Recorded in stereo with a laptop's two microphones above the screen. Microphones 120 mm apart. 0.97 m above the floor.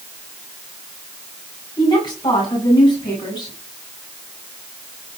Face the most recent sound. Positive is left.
turn(degrees=40)  # may be behind; listen again after turning